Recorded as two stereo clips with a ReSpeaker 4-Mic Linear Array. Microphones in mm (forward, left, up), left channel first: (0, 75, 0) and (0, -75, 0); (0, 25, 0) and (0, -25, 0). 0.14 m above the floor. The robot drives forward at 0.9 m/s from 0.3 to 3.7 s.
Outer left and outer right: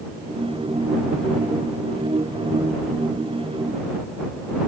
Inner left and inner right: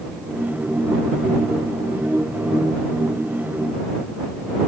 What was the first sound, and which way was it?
Only background noise.